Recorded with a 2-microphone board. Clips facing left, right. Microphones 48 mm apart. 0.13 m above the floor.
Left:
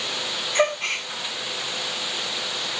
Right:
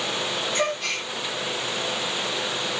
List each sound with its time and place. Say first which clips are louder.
0.6 s a gasp: left 7 dB; 35° left (ahead or behind), 5.5 m